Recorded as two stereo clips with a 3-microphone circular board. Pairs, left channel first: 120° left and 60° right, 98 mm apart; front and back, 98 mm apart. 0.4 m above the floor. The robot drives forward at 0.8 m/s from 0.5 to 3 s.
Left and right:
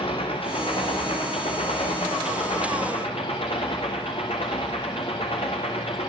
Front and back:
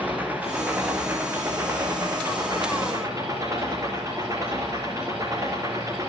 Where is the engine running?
105° left, 5.5 m; by 6.1 s 125° left, 6.5 m.